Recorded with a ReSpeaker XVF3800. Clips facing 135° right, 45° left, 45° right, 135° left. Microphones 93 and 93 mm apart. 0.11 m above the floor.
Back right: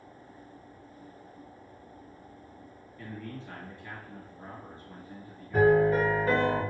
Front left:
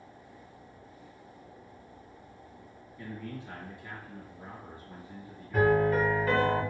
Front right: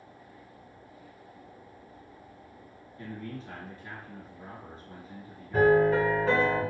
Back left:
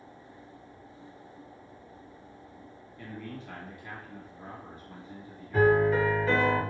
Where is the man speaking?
20° right, 1.4 m.